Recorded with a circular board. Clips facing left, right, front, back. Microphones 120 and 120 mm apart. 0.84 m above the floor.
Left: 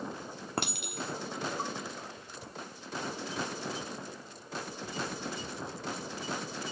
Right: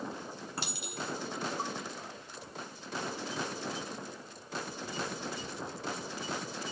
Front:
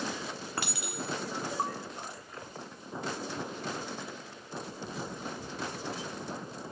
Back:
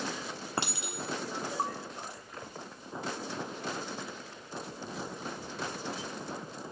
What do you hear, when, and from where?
0.6 s a clink: 115° left, 1.1 m